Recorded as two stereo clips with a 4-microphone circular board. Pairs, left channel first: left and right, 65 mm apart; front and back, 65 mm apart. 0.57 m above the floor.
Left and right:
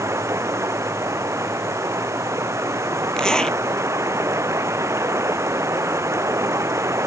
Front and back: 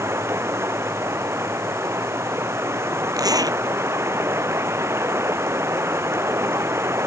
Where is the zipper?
170° left.